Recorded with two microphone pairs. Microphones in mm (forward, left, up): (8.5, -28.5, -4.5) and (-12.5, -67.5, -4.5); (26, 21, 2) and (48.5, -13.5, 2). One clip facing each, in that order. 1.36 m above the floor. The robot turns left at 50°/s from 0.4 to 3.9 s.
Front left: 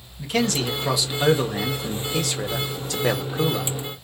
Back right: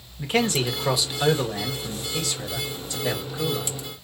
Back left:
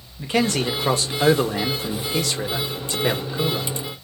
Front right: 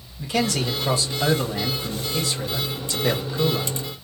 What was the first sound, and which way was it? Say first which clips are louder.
A man speaking: even, back left 2 dB; 175° right.